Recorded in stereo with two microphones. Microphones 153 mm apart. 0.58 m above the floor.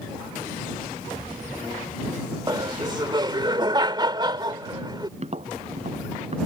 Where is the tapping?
45° right (ahead or behind).